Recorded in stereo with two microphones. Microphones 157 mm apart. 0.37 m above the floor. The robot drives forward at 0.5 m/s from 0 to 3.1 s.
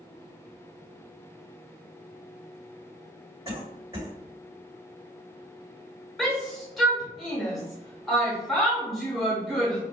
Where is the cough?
20° right (ahead or behind), 1.9 m.